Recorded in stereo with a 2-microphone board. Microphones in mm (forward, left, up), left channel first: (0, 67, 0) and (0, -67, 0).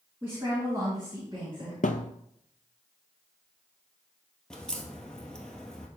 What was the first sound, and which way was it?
A woman speaking, 20° right (ahead or behind).